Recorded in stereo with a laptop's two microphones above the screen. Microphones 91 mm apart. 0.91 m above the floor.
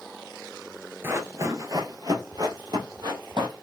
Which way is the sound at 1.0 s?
30° right (ahead or behind).